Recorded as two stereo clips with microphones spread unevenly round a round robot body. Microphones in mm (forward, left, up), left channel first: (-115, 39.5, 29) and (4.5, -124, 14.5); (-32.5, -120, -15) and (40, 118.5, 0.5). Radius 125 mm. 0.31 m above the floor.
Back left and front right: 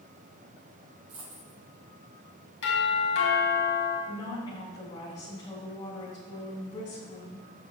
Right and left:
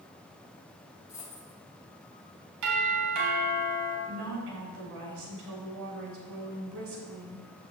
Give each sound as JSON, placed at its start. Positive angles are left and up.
{"t": 1.1, "sound": "a dropped coin", "azimuth_deg": -30, "distance_m": 4.5}
{"t": 2.6, "sound": "a doorbell", "azimuth_deg": 95, "distance_m": 4.0}
{"t": 4.1, "sound": "a woman speaking", "azimuth_deg": 55, "distance_m": 3.0}